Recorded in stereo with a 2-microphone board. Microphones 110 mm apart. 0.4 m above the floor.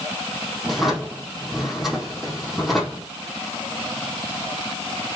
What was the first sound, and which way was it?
A drawer, 5° right (ahead or behind).